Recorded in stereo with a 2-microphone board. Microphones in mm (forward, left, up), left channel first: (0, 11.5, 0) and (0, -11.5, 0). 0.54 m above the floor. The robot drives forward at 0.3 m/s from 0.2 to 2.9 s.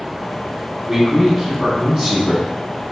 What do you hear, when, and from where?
0.9 s a man speaking: 20° right (ahead or behind), 1.3 m; by 2.8 s 15° right (ahead or behind), 1.7 m